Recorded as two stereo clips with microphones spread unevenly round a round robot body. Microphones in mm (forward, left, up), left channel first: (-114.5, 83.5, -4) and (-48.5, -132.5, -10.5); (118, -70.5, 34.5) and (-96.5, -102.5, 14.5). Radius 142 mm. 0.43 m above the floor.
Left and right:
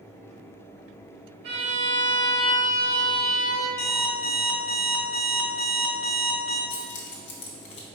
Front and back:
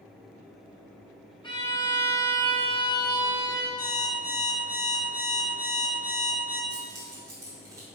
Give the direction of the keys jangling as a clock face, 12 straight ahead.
8 o'clock.